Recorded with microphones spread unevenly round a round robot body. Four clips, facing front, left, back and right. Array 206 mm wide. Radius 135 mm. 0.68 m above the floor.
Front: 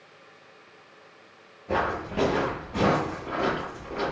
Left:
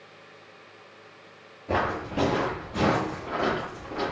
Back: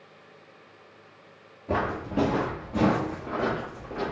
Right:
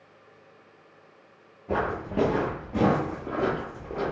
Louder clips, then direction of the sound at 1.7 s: Left 1 dB, front 1 dB; 175° right.